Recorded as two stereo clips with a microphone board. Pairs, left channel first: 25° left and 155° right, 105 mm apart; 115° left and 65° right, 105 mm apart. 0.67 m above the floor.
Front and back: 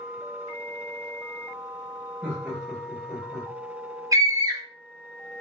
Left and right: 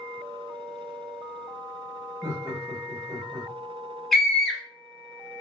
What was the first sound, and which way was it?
Laughter, 100° right.